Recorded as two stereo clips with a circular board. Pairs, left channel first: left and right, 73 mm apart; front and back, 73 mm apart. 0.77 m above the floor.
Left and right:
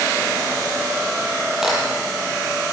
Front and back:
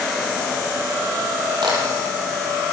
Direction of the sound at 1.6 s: 175° right.